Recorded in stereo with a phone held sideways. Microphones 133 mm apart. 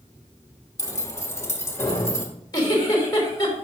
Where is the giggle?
30° left (ahead or behind), 3 m.